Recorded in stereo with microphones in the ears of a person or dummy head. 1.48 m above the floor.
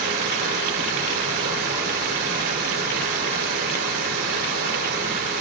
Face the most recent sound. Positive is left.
turn(degrees=-50)  # may be behind; listen again after turning